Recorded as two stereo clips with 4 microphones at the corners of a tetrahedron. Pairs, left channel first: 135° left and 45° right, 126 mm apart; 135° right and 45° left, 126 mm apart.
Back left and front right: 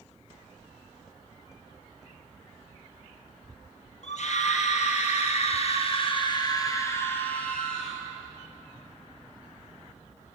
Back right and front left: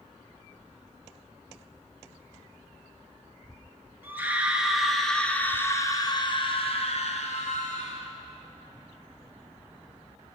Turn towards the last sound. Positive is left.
turn(degrees=-135)